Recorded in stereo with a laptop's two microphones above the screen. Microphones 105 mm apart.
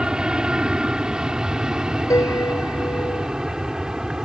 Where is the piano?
30° left (ahead or behind).